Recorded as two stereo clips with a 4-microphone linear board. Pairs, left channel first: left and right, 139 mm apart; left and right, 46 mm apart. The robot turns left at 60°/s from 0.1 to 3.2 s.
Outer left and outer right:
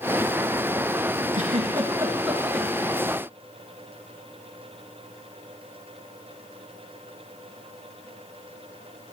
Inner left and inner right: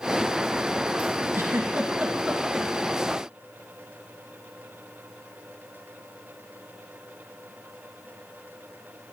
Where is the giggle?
65° right (ahead or behind), 1.3 m; by 2.7 s 15° left (ahead or behind), 1.3 m.